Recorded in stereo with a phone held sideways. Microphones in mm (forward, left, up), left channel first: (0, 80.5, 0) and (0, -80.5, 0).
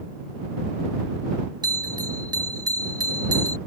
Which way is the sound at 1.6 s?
25° right (ahead or behind).